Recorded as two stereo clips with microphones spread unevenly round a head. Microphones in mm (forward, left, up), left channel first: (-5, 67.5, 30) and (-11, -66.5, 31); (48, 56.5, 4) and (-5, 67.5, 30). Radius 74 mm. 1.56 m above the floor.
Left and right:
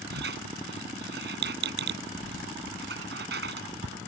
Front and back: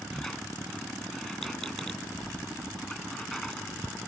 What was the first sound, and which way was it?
A squeak, 105° right.